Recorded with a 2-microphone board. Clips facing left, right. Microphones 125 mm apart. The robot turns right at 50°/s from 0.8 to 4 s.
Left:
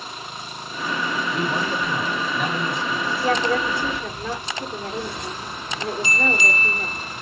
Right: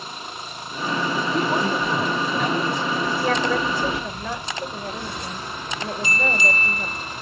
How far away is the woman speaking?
About 2.5 m.